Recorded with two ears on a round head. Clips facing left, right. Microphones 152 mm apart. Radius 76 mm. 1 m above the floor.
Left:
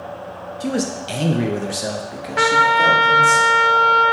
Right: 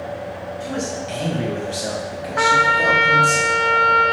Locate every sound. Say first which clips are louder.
0.6 s a man speaking: left 5 dB; 45° left (ahead or behind), 0.7 m; by 3.4 s centre (ahead or behind), 1.7 m
2.4 s a trumpet: left 2 dB; 30° left (ahead or behind), 0.7 m